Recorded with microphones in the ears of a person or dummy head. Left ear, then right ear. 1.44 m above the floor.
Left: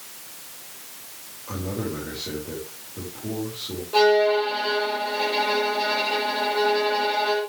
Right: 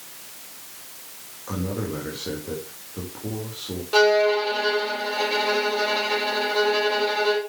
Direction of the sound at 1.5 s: 60° right (ahead or behind).